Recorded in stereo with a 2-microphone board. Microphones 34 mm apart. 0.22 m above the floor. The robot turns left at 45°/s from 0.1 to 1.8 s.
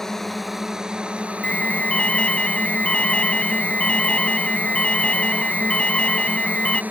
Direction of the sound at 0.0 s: 15° left.